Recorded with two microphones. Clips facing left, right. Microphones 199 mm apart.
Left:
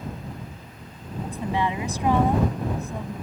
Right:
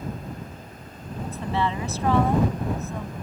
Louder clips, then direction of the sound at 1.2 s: Even; 15° left (ahead or behind).